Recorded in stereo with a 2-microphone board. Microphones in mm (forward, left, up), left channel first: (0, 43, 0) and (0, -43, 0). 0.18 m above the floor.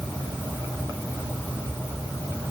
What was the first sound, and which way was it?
Only background noise.